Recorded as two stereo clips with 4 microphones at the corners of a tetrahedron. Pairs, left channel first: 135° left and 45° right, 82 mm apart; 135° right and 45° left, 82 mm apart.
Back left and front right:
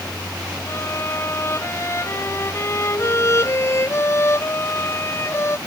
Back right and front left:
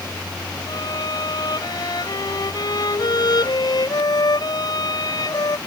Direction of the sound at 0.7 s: 170° right.